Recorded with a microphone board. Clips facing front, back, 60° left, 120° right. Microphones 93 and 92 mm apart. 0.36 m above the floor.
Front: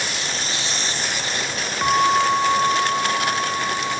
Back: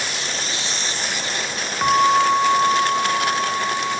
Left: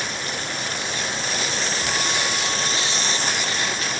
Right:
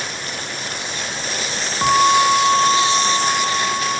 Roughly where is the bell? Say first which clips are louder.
Back 2 dB, right 17 dB; right.